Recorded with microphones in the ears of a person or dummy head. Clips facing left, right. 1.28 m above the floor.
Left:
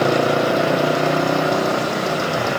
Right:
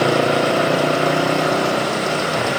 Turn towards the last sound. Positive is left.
turn(degrees=0)  # may be behind; listen again after turning